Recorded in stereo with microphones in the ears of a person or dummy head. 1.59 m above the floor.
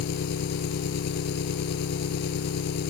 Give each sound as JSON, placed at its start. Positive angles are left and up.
{"t": 0.0, "sound": "an engine running", "side_deg": 55}